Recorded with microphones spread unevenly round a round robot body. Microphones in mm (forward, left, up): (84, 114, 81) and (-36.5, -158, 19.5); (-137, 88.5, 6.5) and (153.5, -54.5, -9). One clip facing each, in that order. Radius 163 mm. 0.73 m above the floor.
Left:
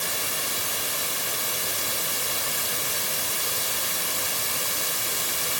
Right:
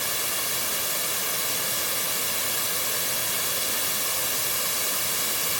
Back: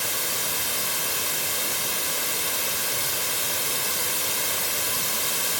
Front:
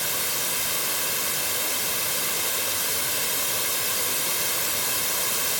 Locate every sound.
Only background noise.